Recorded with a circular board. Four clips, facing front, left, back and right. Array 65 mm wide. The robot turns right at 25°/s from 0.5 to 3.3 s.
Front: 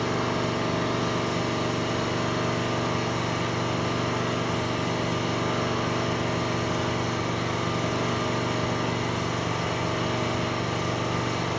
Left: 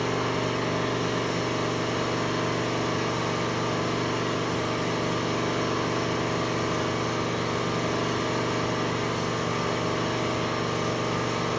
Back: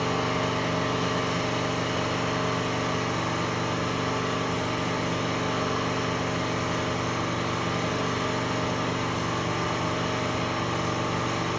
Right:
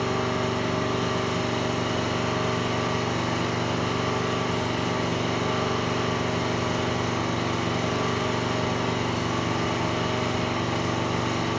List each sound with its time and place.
0.0 s an engine running: 170° right, 1.7 m; by 11.6 s 100° right, 1.7 m